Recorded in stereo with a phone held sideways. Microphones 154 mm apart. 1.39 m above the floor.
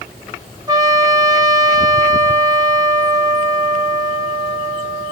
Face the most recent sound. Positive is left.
turn(degrees=-25)  # may be behind; listen again after turning